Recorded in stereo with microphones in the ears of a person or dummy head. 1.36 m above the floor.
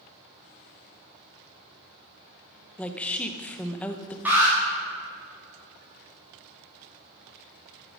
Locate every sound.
2.8 s a woman speaking: 5° left (ahead or behind), 0.9 m
4.2 s an alarm: 5° right (ahead or behind), 3.5 m